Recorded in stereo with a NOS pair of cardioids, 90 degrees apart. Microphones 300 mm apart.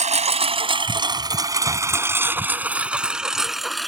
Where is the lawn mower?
25° right; by 3.9 s straight ahead.